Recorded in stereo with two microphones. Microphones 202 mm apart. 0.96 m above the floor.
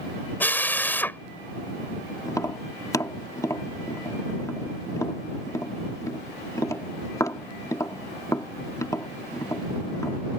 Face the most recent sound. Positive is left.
turn(degrees=15)  # may be behind; listen again after turning